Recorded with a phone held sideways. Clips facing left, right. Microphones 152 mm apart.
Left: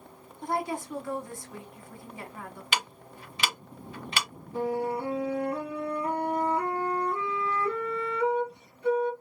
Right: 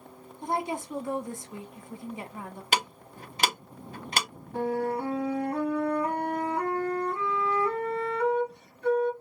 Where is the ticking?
45° right (ahead or behind), 0.6 m.